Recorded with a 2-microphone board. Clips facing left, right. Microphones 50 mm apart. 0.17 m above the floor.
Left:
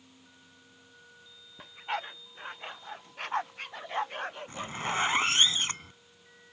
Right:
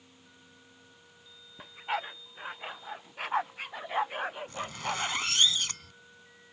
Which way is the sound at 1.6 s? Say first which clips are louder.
Right 1 dB; 5° right (ahead or behind).